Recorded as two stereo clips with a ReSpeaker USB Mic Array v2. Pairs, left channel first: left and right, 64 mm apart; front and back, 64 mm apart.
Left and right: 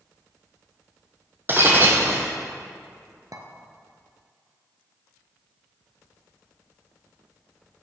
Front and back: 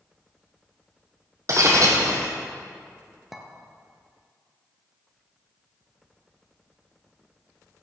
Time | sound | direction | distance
1.5 | breaking glass | 145° right | 2 m
3.3 | a clink | 95° right | 1.7 m